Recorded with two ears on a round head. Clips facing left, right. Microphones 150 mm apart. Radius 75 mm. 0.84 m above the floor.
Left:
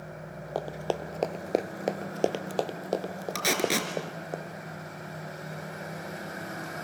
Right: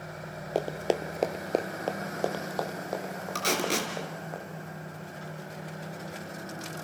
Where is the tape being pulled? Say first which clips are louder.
Left 1 dB; 10° left (ahead or behind), 3 m.